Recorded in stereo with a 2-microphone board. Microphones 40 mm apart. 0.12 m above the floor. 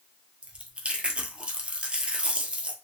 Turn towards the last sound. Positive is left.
turn(degrees=-30)  # may be behind; listen again after turning